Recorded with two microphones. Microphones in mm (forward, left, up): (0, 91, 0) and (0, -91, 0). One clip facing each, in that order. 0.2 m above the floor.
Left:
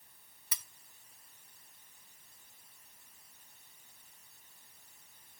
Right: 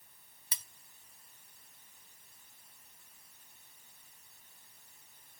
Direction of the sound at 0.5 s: 25° right (ahead or behind).